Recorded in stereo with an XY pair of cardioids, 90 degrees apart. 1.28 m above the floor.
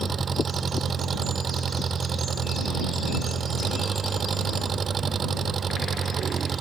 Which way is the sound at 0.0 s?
45° right.